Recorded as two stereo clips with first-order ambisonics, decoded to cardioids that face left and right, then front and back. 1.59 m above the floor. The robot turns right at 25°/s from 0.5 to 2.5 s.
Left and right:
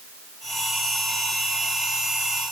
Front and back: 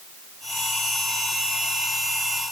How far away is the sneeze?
No sneeze in this recording.